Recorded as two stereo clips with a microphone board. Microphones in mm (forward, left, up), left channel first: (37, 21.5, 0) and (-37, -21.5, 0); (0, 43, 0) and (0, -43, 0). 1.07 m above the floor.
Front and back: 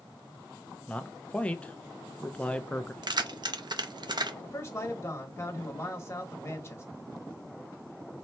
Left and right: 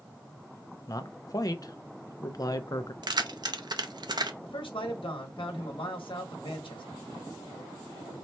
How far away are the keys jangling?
About 0.6 m.